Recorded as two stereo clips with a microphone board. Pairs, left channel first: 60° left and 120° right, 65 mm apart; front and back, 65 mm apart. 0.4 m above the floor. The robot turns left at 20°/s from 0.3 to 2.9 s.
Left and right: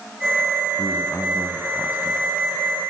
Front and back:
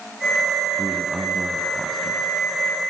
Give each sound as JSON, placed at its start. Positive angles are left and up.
{"t": 0.8, "sound": "a man speaking", "azimuth_deg": 110, "distance_m": 2.5}